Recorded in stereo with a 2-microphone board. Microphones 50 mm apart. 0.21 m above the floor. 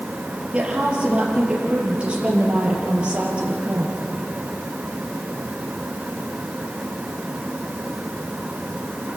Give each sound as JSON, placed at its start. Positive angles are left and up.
{"t": 0.5, "sound": "a woman speaking", "side_deg": -25, "distance_m": 5.0}